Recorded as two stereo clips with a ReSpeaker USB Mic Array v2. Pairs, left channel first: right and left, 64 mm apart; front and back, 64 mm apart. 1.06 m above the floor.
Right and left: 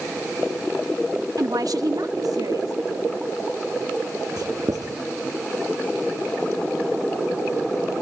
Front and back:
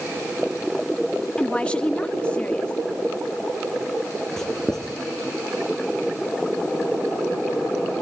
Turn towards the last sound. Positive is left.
turn(degrees=80)